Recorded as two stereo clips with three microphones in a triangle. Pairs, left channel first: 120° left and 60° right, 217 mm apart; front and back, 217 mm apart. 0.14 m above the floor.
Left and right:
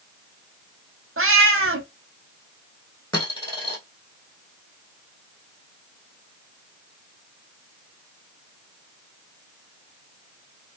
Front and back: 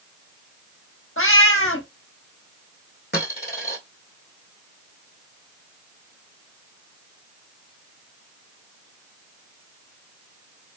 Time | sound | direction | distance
1.2 | a cat meowing | 30° right | 0.7 m
3.1 | a dropped coin | 45° left | 1.7 m